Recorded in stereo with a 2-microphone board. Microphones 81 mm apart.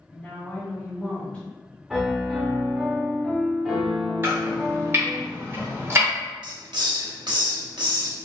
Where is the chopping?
30° right (ahead or behind), 1.3 m.